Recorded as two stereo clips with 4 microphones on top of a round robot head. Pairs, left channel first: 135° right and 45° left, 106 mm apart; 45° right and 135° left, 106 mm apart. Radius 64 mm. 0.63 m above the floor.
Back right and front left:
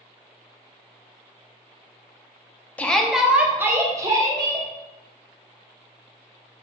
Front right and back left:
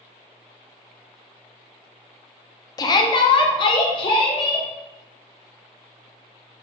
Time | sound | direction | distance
2.8 | a shout | 65° right | 0.6 m